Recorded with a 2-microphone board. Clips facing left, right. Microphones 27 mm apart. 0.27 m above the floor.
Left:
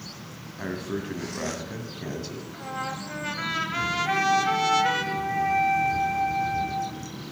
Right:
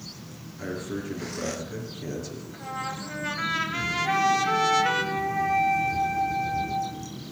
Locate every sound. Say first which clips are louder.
0.6 s a man speaking: left 1 dB; 45° left (ahead or behind), 2.0 m
2.5 s a trumpet: even; 5° left (ahead or behind), 1.0 m
4.0 s a flute: even; centre (ahead or behind), 2 m